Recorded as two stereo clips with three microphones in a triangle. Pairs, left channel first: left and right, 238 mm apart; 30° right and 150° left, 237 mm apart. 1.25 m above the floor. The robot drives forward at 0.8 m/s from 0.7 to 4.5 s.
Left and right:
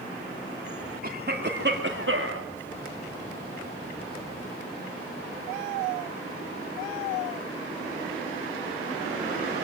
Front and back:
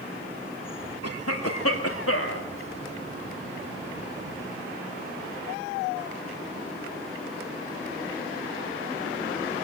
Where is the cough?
40° right, 2.5 m; by 2.5 s 60° right, 1.8 m.